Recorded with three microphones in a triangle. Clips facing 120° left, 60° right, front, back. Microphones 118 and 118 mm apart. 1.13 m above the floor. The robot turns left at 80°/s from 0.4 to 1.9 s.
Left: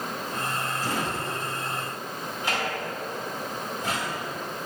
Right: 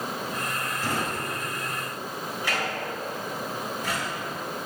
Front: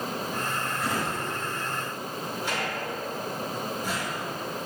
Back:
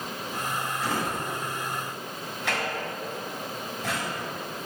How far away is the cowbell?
I don't hear a cowbell.